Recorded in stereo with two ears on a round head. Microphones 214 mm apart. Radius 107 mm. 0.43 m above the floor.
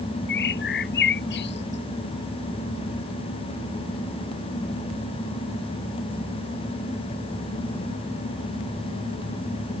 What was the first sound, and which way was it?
A bird, 45° left (ahead or behind).